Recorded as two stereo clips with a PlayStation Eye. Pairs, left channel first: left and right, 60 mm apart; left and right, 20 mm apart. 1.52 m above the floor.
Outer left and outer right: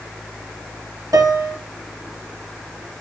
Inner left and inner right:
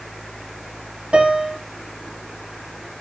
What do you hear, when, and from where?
1.1 s a piano: 80° right, 2.5 m